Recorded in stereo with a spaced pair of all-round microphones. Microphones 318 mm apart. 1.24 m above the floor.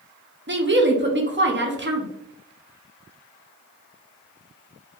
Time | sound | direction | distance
0.5 | a woman speaking | 35° right (ahead or behind) | 0.6 m